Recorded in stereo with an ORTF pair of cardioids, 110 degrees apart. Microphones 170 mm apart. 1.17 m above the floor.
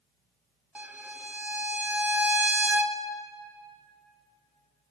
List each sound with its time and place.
0.8 s a violin: 10° right, 0.5 m